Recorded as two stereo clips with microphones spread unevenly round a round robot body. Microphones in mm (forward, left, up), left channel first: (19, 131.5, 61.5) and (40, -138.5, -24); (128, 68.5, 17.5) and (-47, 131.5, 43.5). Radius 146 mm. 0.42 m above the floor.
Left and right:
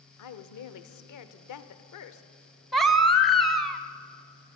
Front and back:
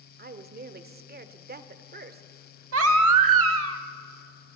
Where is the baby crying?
175° right, 0.8 m.